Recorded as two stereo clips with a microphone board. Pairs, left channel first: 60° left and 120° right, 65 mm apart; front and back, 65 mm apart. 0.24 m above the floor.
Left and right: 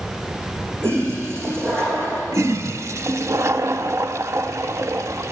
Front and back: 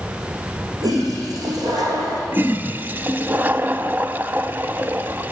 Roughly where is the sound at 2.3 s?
Behind right.